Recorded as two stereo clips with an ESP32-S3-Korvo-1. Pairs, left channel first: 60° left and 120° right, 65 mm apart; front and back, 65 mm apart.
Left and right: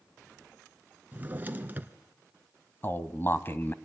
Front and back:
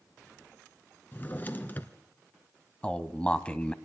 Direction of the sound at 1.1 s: 60° right.